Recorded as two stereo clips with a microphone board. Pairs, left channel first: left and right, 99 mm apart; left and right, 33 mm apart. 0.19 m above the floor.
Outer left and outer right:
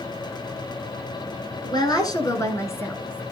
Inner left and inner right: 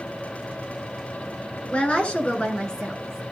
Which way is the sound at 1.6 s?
45° left (ahead or behind).